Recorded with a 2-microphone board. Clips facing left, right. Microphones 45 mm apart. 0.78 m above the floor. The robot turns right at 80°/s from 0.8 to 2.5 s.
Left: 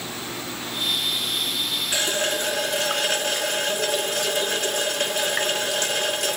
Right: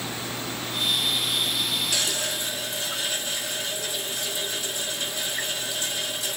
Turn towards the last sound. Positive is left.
turn(degrees=75)